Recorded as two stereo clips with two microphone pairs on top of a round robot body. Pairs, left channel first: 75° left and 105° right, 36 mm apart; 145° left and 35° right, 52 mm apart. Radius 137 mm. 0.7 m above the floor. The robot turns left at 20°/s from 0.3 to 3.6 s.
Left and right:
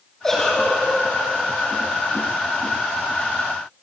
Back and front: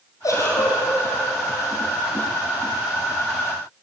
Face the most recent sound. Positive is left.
turn(degrees=90)